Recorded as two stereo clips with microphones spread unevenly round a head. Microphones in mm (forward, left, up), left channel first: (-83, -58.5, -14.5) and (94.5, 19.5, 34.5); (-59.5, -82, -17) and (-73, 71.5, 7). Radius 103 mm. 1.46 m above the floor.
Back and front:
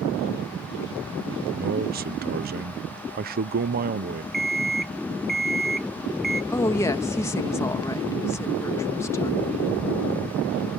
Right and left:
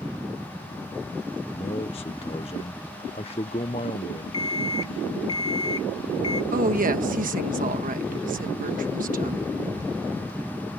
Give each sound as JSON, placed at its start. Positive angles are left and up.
{"t": 1.5, "sound": "a man speaking", "azimuth_deg": -25}
{"t": 4.3, "sound": "an alarm clock", "azimuth_deg": -35}
{"t": 6.5, "sound": "a woman speaking", "azimuth_deg": 125}